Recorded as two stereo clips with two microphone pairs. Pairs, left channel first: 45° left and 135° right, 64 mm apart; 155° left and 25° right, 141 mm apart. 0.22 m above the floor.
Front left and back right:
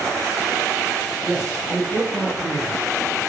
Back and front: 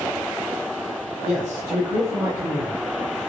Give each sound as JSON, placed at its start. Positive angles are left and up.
{"t": 1.2, "sound": "a man speaking", "azimuth_deg": -45, "distance_m": 1.0}